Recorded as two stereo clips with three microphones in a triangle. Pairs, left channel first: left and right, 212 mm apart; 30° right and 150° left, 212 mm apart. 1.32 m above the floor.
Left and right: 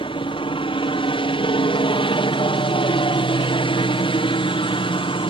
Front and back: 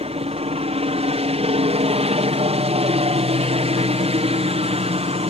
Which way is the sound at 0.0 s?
130° left.